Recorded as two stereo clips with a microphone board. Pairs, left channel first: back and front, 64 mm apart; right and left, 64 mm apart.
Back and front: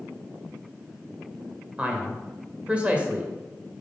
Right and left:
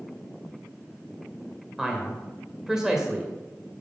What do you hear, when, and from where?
1.8 s a man speaking: 25° left, 1.6 m